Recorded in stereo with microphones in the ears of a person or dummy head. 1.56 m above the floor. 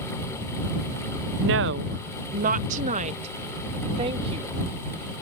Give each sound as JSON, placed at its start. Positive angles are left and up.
{"t": 1.4, "sound": "a woman speaking", "side_deg": -50}